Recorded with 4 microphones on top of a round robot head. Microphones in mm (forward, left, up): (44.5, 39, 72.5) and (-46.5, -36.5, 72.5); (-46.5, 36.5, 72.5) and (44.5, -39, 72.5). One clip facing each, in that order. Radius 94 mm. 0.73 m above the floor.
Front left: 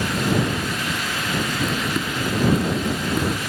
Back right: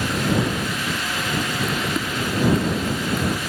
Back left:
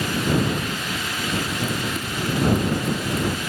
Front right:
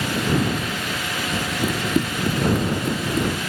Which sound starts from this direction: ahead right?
Running footsteps, at 1.6 s.